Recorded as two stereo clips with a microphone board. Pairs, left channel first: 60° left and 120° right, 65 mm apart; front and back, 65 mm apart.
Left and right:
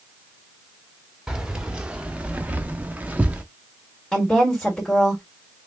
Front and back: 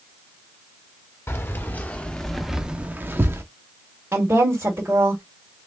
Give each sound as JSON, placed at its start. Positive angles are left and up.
{"t": 1.3, "sound": "keys jangling", "azimuth_deg": -40, "distance_m": 0.9}
{"t": 4.1, "sound": "a woman speaking", "azimuth_deg": 140, "distance_m": 1.9}